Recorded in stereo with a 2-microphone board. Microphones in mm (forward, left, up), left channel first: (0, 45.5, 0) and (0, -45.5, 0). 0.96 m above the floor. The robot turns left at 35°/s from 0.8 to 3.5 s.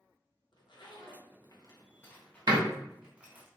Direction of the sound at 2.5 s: 55° right (ahead or behind).